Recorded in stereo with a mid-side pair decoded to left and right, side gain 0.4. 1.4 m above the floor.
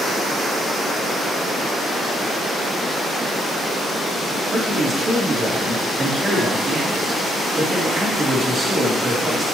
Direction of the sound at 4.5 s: 35° right.